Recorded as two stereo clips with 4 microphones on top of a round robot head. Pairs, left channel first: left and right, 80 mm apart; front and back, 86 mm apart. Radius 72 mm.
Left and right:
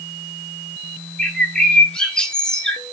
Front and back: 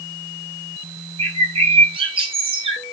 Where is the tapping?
No tapping in this recording.